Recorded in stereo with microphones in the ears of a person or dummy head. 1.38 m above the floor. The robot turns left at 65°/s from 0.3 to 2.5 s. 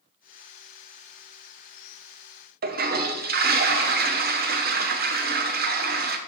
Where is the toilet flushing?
40° right (ahead or behind), 0.6 m.